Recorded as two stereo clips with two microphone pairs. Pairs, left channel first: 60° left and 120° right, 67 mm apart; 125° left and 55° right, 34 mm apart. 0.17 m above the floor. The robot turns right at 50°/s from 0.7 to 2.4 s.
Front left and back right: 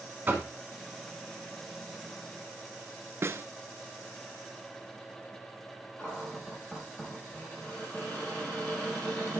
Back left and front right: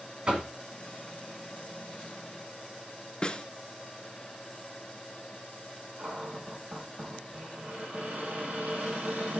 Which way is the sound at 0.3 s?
90° right.